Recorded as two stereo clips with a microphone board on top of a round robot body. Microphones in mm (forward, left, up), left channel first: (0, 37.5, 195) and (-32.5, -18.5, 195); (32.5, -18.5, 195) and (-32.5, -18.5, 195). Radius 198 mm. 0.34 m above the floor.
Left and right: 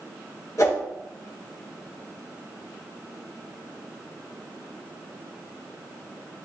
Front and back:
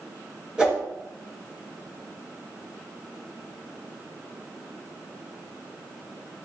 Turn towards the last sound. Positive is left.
turn(degrees=105)